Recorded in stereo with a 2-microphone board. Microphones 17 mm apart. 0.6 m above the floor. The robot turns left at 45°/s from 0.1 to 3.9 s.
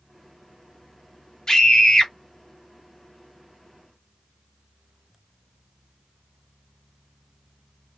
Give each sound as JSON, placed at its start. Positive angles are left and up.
{"t": 1.5, "sound": "a scream", "side_deg": 45, "distance_m": 1.2}